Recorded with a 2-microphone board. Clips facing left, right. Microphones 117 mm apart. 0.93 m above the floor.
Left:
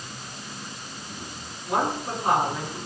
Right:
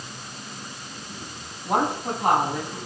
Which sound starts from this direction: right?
A woman speaking, at 1.6 s.